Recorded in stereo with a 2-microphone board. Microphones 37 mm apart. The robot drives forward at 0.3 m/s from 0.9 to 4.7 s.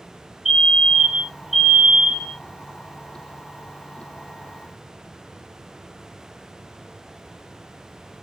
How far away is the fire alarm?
About 1.1 m.